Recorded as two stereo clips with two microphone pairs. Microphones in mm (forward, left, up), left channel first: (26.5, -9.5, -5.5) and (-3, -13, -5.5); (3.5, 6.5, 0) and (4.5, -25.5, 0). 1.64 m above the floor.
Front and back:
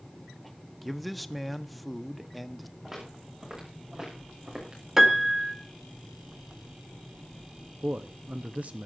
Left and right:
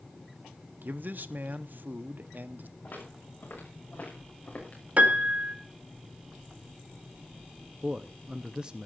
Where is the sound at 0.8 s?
75° right, 0.8 m.